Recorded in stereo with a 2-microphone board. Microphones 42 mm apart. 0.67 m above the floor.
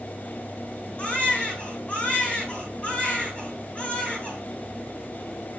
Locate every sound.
1.0 s a baby crying: 30° left (ahead or behind), 4.5 m